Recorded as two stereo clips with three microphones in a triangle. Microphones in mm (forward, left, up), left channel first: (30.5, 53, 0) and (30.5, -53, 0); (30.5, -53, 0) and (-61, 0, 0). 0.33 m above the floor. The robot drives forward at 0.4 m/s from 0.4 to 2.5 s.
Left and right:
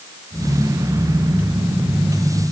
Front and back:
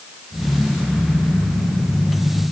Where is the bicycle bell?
No bicycle bell in this recording.